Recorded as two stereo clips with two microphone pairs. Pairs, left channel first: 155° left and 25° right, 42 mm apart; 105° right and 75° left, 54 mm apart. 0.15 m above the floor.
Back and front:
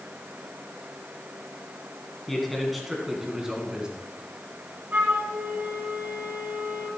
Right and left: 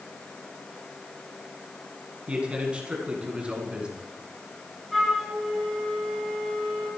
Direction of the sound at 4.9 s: 15° right.